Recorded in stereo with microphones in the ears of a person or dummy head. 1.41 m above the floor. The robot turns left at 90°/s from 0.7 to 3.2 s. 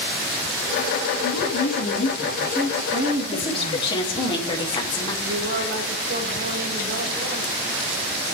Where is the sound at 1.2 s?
120° left, 2.5 m; by 4.3 s 55° right, 2.5 m.